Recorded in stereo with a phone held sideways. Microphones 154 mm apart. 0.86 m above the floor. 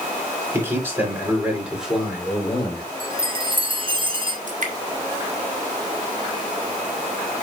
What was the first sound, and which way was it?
A man speaking, 15° right (ahead or behind).